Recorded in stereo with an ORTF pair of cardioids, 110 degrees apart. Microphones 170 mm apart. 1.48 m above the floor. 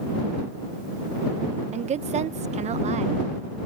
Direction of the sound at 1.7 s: 40° right.